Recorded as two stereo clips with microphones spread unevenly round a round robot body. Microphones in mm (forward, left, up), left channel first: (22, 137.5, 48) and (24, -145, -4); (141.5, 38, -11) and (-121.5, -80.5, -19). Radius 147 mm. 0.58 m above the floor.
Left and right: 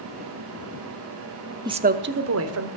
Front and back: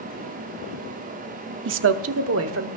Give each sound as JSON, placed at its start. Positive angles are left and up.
{"t": 1.6, "sound": "a woman speaking", "azimuth_deg": -145, "distance_m": 0.7}